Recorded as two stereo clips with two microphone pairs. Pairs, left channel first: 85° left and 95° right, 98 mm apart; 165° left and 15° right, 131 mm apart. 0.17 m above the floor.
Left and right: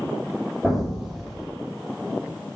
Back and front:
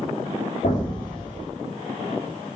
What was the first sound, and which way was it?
An explosion, straight behind.